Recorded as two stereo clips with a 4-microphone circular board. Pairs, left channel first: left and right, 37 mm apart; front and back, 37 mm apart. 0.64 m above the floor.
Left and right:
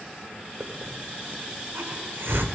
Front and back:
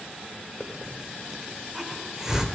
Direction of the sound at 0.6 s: 105° right.